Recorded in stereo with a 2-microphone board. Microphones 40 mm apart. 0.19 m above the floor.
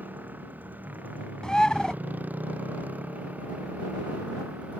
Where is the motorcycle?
45° right (ahead or behind); by 4.8 s 35° right (ahead or behind).